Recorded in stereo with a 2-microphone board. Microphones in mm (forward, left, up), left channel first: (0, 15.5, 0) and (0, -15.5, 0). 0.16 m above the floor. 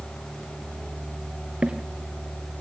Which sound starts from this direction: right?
Footsteps, at 1.6 s.